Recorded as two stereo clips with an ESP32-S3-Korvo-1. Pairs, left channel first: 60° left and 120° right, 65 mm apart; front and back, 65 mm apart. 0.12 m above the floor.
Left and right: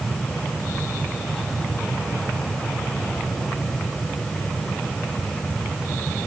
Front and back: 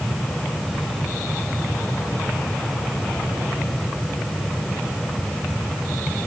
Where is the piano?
No piano in this recording.